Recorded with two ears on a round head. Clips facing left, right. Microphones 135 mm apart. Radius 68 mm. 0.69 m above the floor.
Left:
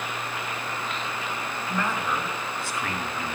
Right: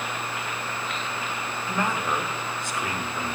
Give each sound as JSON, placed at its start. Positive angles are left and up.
{"t": 1.7, "sound": "a man speaking", "side_deg": -15, "distance_m": 1.4}